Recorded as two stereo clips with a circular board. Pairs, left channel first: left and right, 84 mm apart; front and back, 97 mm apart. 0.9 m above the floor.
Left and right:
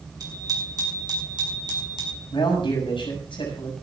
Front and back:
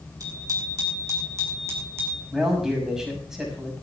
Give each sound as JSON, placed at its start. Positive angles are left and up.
{"t": 0.2, "sound": "a bicycle bell", "azimuth_deg": -130, "distance_m": 7.0}
{"t": 2.3, "sound": "a man speaking", "azimuth_deg": 95, "distance_m": 6.5}